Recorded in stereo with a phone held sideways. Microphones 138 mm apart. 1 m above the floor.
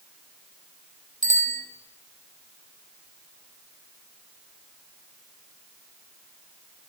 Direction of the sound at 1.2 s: 90° right.